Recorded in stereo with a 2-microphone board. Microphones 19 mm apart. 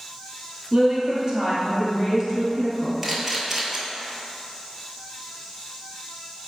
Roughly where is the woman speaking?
Right.